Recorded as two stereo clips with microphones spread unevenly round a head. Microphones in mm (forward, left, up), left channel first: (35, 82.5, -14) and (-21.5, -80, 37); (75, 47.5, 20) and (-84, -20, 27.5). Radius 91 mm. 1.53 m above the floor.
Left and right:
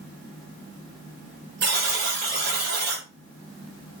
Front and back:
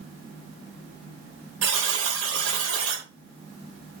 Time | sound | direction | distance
1.6 | a buzzer | 140° right | 4 m